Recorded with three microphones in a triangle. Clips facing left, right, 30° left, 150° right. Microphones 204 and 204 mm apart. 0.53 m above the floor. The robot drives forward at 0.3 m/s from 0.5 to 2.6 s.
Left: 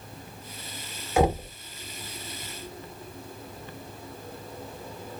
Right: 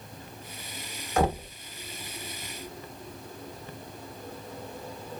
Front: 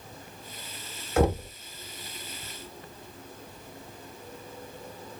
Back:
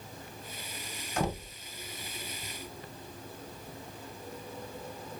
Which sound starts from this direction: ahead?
Knocking, at 1.2 s.